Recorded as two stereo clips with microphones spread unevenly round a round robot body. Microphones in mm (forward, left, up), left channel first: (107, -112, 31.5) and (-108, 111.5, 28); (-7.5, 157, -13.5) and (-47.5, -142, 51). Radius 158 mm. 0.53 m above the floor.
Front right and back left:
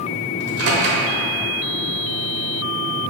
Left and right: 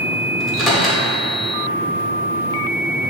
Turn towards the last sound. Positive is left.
turn(degrees=165)